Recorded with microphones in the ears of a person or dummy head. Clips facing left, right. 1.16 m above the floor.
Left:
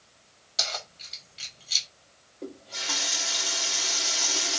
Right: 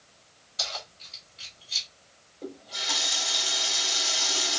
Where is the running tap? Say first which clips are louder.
Even; 5° left (ahead or behind), 1.4 m.